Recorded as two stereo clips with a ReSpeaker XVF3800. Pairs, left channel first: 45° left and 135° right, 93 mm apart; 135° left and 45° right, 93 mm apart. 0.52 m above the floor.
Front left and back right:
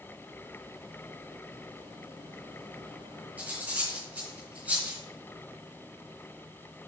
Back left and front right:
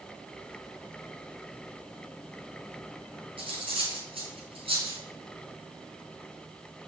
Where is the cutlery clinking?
60° right, 3.5 m.